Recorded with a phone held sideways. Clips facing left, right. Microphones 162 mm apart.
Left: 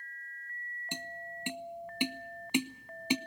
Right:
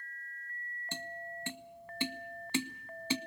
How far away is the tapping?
About 0.6 m.